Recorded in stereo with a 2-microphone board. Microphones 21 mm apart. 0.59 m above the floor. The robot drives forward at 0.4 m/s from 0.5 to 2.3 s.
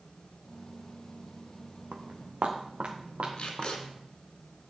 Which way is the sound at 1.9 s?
65° right (ahead or behind).